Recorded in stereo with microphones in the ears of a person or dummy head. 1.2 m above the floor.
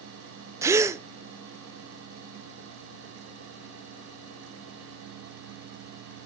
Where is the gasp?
10° right (ahead or behind), 0.6 m.